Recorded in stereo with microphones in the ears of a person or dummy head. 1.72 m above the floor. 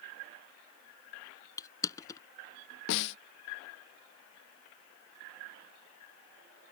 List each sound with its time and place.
1.6 s crushing: 15° left (ahead or behind)
2.9 s a snare drum: 65° left (ahead or behind)